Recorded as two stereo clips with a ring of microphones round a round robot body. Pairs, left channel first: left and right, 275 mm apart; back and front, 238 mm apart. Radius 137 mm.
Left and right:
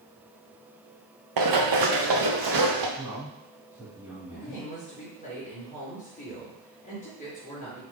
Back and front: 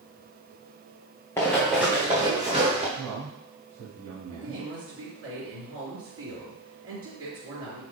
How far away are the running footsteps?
About 1.5 m.